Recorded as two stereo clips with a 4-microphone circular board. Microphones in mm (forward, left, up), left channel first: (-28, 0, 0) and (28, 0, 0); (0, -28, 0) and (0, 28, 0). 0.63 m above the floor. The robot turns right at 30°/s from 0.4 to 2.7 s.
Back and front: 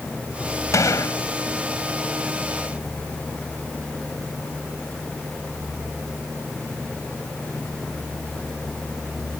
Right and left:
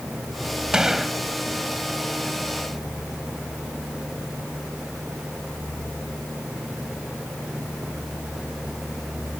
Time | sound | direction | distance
0.7 | a gunshot | 170° left | ?